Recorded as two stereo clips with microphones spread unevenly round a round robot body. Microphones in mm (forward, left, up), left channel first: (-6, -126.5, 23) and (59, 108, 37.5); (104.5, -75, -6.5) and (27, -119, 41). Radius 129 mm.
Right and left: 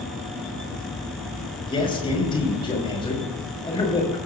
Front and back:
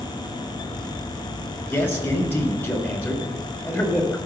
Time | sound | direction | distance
1.7 | a man speaking | 35° right | 5.5 m